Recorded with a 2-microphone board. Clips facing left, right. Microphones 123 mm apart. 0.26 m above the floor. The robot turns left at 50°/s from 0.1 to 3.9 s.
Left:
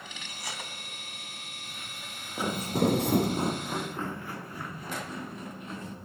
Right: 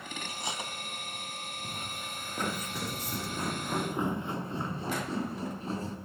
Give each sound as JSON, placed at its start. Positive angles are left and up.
{"t": 0.3, "sound": "cutlery clinking", "side_deg": -30, "distance_m": 1.4}
{"t": 1.6, "sound": "footsteps", "side_deg": -50, "distance_m": 1.5}